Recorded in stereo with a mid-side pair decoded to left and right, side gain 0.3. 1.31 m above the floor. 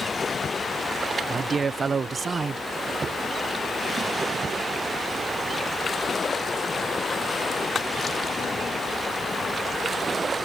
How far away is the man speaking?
About 0.5 m.